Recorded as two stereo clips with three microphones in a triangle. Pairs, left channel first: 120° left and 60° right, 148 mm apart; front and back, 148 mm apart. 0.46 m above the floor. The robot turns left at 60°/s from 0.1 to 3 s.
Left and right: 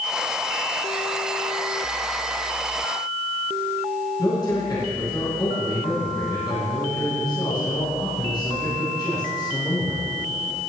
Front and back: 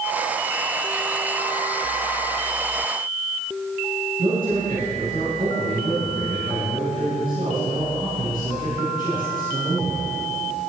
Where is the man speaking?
Straight behind, 3.5 m.